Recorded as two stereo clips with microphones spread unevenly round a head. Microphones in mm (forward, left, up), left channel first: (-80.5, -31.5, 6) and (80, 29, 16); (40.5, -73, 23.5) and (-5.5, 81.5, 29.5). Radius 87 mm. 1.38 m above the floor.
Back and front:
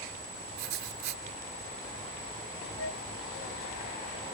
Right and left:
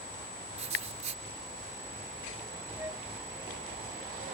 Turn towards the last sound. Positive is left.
turn(degrees=-175)